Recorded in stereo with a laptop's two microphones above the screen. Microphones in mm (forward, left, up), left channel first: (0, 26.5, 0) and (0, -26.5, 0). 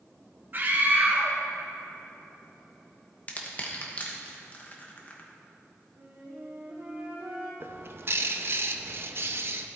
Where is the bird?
45° right (ahead or behind), 0.5 m.